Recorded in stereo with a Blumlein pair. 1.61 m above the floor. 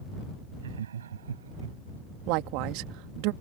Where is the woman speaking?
45° right.